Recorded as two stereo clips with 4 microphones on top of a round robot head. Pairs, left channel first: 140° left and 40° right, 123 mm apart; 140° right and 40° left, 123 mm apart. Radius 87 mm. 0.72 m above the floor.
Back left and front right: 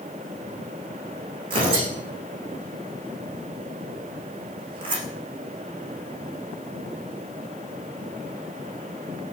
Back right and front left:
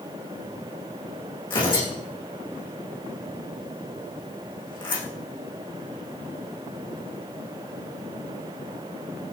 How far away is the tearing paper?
About 9.5 m.